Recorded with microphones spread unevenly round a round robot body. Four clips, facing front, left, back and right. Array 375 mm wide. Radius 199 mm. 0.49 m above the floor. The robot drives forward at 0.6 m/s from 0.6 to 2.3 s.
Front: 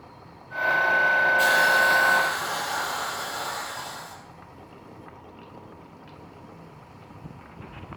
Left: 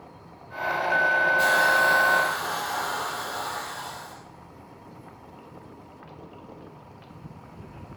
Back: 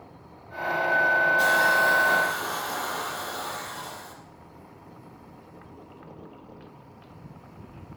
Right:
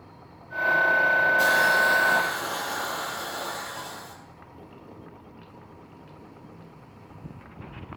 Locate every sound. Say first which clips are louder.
1.4 s a hiss: even, front 1 dB; 120° right, 4.5 m; by 4.1 s 130° right, 4.5 m